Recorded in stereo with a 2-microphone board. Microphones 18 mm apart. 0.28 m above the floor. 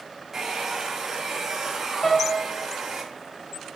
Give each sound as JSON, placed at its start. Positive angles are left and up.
{"t": 0.3, "sound": "a hair dryer", "side_deg": -25, "distance_m": 1.7}
{"t": 2.0, "sound": "a piano", "side_deg": 25, "distance_m": 1.7}